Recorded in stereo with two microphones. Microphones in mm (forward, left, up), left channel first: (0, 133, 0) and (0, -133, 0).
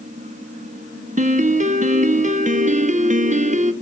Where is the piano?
25° right (ahead or behind), 0.5 m.